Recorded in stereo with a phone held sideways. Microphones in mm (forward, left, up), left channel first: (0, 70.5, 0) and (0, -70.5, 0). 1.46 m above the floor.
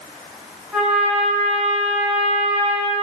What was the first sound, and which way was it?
A trumpet, 10° right (ahead or behind).